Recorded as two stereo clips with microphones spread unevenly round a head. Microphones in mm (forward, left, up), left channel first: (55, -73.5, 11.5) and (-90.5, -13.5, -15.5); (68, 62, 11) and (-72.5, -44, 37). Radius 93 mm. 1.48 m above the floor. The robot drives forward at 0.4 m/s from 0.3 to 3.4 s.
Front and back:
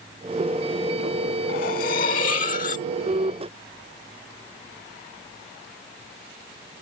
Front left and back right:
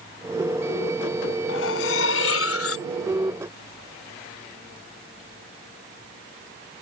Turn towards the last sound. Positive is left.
turn(degrees=20)